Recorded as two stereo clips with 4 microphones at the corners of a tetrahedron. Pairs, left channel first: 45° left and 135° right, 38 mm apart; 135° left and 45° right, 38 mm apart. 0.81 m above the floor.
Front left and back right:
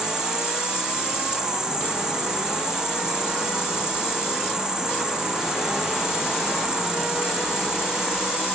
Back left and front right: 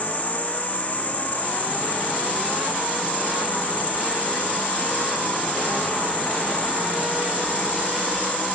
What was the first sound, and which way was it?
An insect, 160° left.